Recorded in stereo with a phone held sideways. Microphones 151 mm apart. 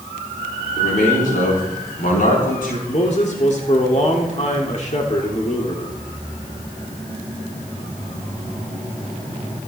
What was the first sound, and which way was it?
A man speaking, 65° left (ahead or behind).